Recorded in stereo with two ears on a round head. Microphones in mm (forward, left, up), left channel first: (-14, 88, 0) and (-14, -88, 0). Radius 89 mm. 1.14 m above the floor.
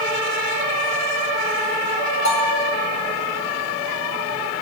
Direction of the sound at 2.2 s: 70° left (ahead or behind).